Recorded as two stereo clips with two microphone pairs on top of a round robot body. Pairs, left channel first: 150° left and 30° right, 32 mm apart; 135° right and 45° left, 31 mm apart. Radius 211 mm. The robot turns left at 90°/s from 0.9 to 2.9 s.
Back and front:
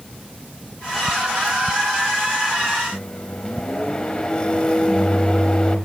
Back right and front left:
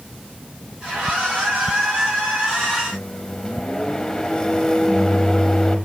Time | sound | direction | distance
2.9 | a microwave | 175° left | 1.2 m